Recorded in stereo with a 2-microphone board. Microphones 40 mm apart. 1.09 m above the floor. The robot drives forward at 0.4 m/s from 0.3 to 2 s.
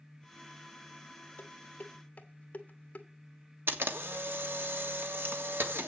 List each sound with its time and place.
1.4 s dishes clattering: 45° left (ahead or behind), 1.2 m; by 3.1 s 40° left (ahead or behind), 1.4 m
3.7 s a camera shutter: 65° right (ahead or behind), 1.6 m